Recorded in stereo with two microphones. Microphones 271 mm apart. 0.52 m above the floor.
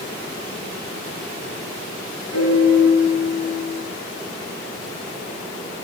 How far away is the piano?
About 8.5 m.